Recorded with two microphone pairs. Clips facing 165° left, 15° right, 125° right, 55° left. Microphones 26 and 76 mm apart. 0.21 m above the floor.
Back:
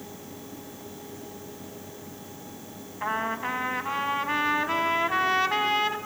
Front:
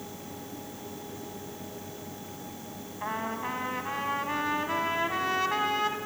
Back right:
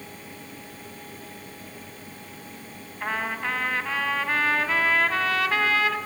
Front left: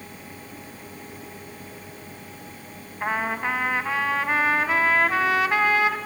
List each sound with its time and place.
3.0 s a trumpet: 105° left, 1.4 m